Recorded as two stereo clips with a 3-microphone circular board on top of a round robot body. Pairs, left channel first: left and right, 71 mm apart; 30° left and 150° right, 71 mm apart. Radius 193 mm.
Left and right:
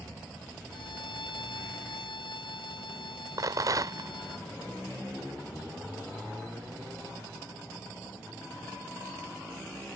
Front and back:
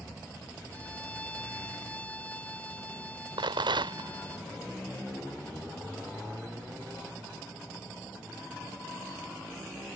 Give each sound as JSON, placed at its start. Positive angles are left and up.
{"t": 0.7, "sound": "a violin", "azimuth_deg": 105}
{"t": 3.4, "sound": "a rattle", "azimuth_deg": -135}